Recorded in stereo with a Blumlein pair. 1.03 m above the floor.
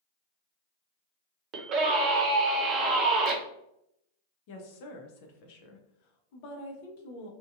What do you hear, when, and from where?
1.5 s a scream: 35° right, 0.9 m
4.5 s a woman speaking: 45° left, 0.6 m